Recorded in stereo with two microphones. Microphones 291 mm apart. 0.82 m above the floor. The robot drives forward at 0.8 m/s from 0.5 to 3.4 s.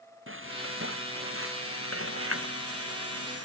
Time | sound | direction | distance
0.3 | frying | 45° right (ahead or behind) | ?